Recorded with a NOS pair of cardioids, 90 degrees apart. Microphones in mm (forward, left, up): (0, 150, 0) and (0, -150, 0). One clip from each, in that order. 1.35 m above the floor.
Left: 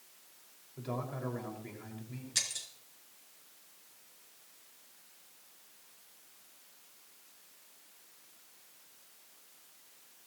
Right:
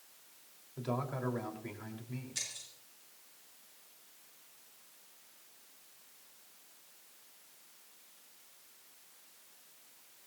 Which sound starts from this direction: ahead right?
A man speaking, at 0.8 s.